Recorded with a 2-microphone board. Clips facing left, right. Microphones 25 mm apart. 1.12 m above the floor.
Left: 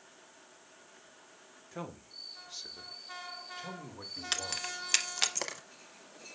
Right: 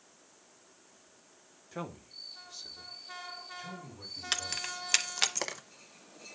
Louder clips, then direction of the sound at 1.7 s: Right 2 dB; 10° right (ahead or behind).